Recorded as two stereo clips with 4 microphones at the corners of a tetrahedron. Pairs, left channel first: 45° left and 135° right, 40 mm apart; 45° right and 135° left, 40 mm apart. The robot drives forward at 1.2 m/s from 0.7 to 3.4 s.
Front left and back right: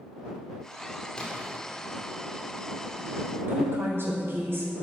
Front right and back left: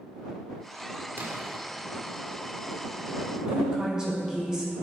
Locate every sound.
1.2 s a splash: 110° left, 2.5 m; by 1.6 s 120° left, 3 m
3.5 s a woman speaking: 150° right, 5 m